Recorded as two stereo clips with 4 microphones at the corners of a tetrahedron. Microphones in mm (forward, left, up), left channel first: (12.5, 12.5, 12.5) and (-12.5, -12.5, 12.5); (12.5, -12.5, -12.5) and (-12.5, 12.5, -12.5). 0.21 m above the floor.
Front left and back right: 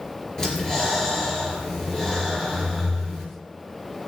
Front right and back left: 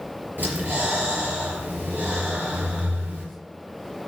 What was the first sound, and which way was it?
Breathing, 115° left.